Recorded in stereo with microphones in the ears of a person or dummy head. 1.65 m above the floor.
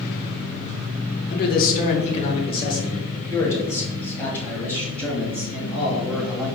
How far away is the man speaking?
About 0.9 m.